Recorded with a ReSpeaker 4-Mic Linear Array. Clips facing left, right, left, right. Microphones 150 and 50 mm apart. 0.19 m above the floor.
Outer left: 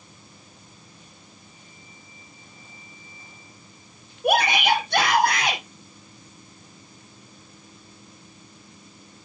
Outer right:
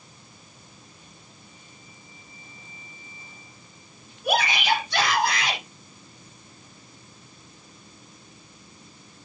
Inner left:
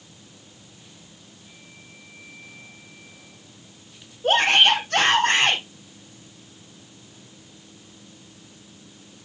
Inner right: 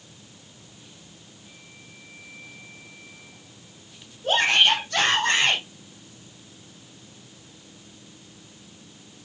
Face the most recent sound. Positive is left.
turn(degrees=55)  # may be behind; listen again after turning